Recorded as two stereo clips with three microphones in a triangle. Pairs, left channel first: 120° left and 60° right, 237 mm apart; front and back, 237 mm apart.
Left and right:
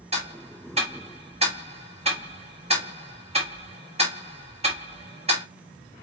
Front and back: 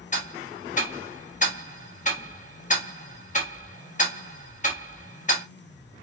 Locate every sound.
0.1 s ticking: 20° right, 0.9 m